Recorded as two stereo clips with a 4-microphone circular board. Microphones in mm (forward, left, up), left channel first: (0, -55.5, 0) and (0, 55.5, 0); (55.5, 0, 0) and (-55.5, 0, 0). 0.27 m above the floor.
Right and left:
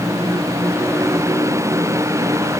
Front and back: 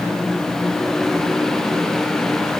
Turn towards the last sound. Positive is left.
No sound to turn to.